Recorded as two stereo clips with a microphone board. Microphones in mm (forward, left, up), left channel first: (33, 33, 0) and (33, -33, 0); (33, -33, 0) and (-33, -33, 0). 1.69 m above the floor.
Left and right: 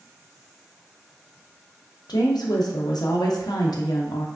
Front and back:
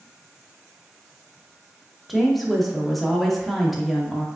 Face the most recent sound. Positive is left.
turn(degrees=90)